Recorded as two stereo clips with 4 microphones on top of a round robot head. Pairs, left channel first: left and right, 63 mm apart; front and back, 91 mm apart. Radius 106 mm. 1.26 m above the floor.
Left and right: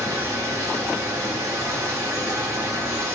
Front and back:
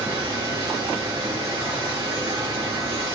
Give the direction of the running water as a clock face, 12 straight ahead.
4 o'clock.